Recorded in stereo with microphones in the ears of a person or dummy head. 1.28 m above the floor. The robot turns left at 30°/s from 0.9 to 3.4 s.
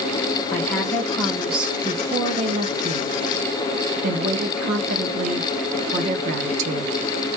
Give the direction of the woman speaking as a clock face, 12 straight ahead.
11 o'clock.